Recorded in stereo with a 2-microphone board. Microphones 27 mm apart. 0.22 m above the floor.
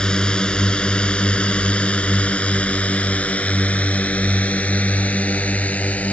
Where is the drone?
35° left (ahead or behind); by 6.1 s 70° left (ahead or behind).